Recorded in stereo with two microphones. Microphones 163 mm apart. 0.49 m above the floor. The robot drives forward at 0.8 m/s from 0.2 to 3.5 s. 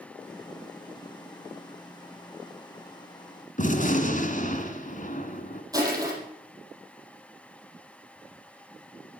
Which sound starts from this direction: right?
Crushing, at 5.7 s.